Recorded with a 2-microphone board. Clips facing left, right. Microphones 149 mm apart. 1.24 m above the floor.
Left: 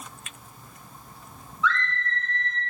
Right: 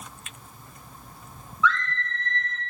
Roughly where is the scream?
Left.